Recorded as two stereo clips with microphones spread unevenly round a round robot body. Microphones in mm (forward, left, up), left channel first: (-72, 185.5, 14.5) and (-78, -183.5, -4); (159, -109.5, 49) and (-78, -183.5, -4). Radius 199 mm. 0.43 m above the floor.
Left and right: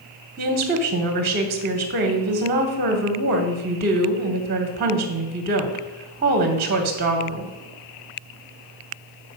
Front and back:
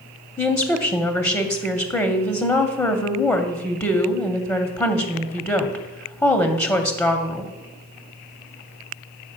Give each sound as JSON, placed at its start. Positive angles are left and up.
{"t": 0.4, "sound": "a woman speaking", "azimuth_deg": -75, "distance_m": 0.8}